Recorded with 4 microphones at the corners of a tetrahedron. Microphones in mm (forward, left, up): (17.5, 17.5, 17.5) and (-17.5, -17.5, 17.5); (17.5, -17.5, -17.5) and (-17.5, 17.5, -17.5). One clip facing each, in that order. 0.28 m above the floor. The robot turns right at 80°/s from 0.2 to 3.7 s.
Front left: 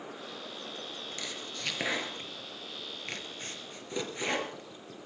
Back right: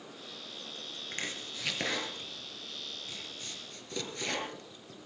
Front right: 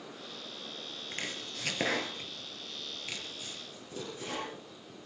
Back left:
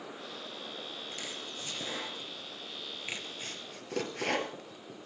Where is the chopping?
90° right, 3.5 m; by 5.1 s 115° left, 3.5 m.